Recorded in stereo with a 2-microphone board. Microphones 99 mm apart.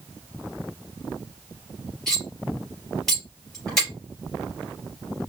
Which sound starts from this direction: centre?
Cutlery clinking, at 2.1 s.